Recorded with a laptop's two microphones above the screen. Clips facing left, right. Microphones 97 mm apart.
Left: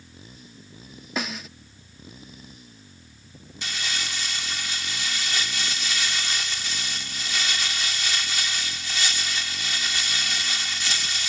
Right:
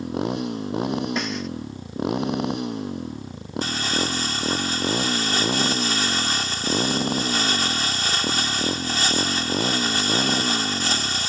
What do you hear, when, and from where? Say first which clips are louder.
0.0 s a motorcycle: right 23 dB; 70° right (ahead or behind)
1.2 s a snare drum: right 5 dB; centre (ahead or behind)
3.6 s crumpling: right 8 dB; 40° right (ahead or behind)